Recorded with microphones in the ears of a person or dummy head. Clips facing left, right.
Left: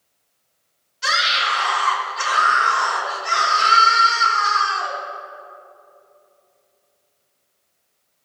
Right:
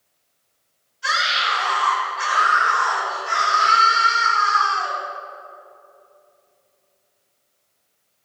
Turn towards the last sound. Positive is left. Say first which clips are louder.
# left 1 dB
turn(degrees=80)